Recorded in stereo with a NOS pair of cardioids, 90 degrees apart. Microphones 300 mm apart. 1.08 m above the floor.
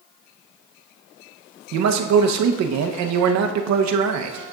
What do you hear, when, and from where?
1.7 s a man speaking: 70° right, 0.8 m